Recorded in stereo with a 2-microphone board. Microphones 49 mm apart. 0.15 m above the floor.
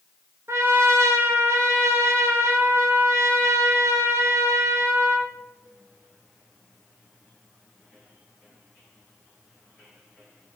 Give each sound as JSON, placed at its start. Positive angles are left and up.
{"t": 0.5, "sound": "a trumpet", "side_deg": -60, "distance_m": 0.6}